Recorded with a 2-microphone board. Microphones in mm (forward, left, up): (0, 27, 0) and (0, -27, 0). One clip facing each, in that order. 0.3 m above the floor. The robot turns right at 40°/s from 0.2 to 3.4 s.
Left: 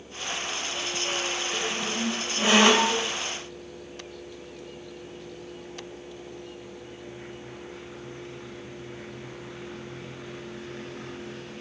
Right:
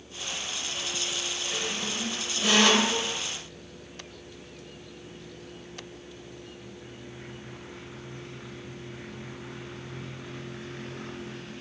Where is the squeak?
10° left, 0.7 m; by 3.1 s 75° left, 0.7 m.